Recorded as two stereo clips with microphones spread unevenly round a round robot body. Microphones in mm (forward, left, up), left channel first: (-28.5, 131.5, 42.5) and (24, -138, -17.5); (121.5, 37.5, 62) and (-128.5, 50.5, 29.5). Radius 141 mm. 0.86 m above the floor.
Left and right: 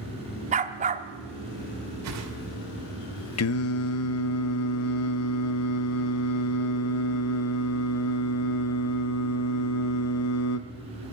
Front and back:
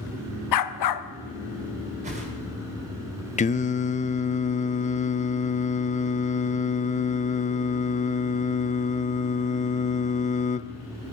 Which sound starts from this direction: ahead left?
Singing, at 3.4 s.